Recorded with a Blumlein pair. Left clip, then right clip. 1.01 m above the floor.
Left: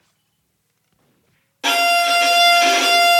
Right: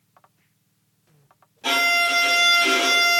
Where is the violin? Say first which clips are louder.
Left 4 dB; 55° left, 0.8 m.